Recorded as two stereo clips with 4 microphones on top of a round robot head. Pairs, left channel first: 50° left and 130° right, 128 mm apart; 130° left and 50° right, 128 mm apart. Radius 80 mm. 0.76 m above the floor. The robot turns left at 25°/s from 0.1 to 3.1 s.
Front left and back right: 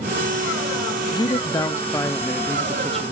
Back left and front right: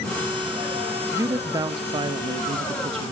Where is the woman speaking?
10° left, 0.6 m; by 3.1 s 40° right, 0.6 m.